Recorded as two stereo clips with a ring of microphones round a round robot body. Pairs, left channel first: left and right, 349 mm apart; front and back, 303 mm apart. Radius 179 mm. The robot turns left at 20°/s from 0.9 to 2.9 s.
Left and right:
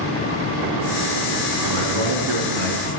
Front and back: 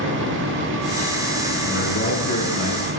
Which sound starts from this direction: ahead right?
A man speaking, at 1.6 s.